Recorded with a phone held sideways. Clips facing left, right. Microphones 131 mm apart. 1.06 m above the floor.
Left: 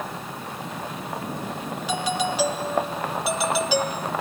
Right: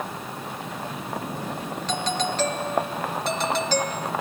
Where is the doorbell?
10° left (ahead or behind).